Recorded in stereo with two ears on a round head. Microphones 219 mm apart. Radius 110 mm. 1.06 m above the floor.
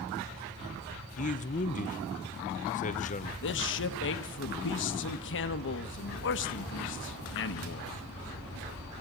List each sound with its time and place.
1.2 s a man speaking: 30° left (ahead or behind), 0.8 m
3.4 s a man speaking: 55° left (ahead or behind), 1.2 m